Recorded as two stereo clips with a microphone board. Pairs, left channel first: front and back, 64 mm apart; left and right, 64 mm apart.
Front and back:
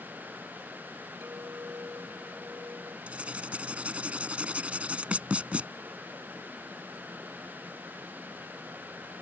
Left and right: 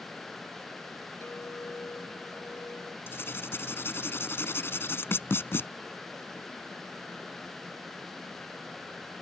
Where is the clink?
135° left.